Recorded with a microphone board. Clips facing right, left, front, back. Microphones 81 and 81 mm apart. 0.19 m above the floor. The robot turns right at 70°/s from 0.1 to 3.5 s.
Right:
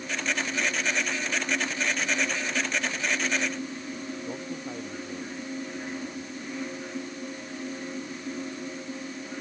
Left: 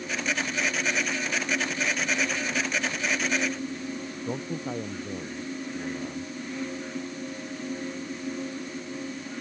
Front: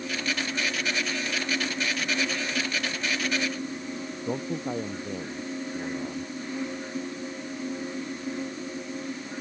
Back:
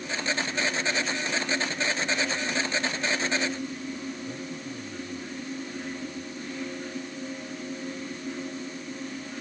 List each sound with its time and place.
4.3 s a man speaking: 20° left